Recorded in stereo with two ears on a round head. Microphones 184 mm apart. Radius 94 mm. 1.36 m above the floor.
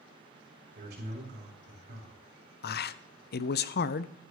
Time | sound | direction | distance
0.8 | a man speaking | 55° right (ahead or behind) | 5.5 m
2.6 | a man speaking | 50° left (ahead or behind) | 0.6 m